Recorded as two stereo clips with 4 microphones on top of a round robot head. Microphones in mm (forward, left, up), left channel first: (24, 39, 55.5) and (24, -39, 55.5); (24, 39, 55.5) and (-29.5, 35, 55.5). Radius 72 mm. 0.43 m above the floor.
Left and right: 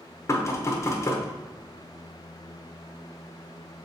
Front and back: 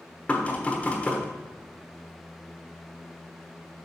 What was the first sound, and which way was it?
Knocking, 60° left.